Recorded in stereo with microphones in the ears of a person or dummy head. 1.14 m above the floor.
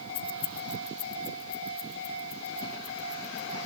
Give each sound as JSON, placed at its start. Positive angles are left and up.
{"t": 0.1, "sound": "keys jangling", "side_deg": 40, "distance_m": 0.6}